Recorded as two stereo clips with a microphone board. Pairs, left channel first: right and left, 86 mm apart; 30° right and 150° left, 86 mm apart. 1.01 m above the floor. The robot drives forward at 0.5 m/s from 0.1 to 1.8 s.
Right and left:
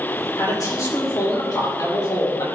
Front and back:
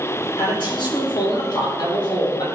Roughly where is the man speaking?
Ahead right.